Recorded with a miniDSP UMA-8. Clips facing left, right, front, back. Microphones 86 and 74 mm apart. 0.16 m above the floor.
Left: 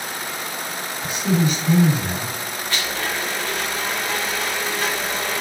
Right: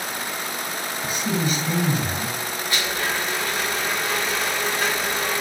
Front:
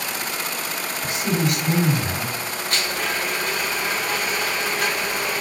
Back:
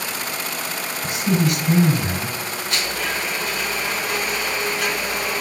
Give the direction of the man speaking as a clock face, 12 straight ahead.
11 o'clock.